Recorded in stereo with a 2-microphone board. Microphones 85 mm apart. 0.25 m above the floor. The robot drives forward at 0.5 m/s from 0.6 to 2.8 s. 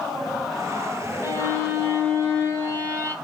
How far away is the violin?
About 2.5 m.